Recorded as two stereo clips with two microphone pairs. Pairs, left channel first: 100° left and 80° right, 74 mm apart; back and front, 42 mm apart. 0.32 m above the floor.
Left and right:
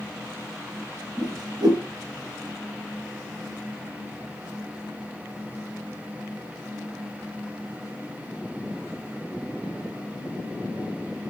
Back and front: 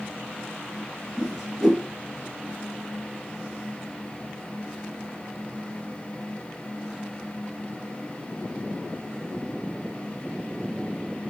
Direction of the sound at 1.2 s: 85° right.